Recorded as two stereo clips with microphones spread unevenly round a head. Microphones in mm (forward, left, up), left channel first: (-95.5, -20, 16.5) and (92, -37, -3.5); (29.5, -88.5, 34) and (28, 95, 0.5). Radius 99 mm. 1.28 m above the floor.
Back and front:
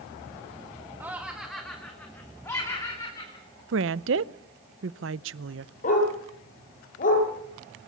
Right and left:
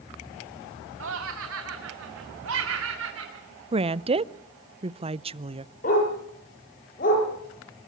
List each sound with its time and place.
1.0 s laughter: 75° left, 1.5 m; by 3.6 s 105° left, 3.5 m
3.7 s a woman speaking: 30° left, 0.6 m
5.8 s a dog barking: 140° right, 9 m